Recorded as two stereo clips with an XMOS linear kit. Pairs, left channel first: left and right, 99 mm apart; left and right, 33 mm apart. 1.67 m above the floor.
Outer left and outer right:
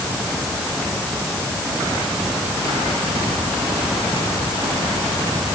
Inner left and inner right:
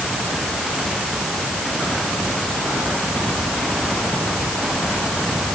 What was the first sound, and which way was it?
Only background noise.